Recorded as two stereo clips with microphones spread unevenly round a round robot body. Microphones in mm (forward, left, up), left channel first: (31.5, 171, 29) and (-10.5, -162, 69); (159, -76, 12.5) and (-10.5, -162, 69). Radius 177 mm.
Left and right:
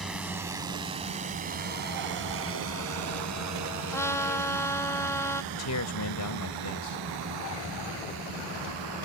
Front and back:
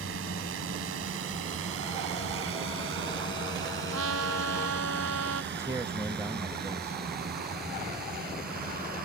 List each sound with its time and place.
0.0 s a drone: 175° left; by 9.1 s 115° right
3.9 s a trumpet: 165° left
5.5 s a man speaking: 120° left